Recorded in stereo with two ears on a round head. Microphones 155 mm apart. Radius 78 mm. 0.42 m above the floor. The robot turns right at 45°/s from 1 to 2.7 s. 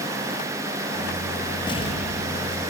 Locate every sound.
1.7 s an explosion: 25° left, 5 m; by 2.7 s 75° left, 5 m